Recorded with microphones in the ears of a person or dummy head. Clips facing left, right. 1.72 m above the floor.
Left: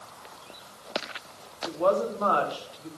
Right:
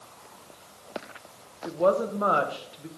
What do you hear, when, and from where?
1.6 s a woman speaking: 25° right (ahead or behind), 1.1 m